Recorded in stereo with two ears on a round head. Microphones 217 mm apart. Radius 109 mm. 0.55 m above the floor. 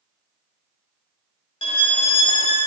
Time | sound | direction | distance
1.6 | a violin | 25° left (ahead or behind) | 0.7 m